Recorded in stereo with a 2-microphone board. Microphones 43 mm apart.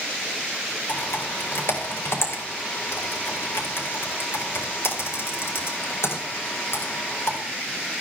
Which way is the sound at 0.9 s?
75° left (ahead or behind).